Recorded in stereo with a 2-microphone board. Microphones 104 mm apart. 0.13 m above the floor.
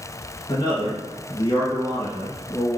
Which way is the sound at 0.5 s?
45° left (ahead or behind).